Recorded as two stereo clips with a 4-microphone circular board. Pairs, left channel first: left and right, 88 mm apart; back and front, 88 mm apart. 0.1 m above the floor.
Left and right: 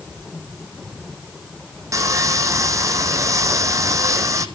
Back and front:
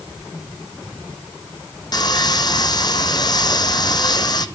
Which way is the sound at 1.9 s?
140° right.